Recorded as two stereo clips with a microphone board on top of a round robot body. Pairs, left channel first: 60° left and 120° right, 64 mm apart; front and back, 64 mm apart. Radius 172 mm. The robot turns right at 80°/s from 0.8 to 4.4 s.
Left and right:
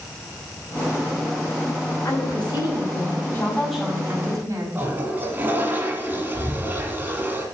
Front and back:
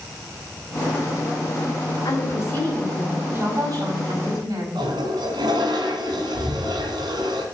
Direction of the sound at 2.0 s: 15° left.